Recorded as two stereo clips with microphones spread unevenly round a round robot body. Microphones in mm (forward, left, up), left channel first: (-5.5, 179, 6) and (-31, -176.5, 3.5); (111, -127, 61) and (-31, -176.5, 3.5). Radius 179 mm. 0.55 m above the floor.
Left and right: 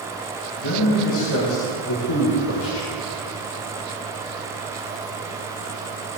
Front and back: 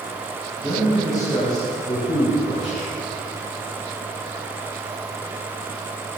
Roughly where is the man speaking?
Behind left.